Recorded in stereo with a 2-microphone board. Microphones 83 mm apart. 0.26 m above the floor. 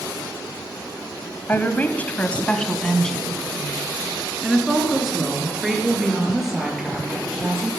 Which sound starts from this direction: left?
A woman speaking, at 1.5 s.